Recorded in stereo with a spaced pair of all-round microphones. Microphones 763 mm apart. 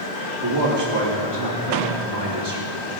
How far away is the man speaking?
About 2.5 m.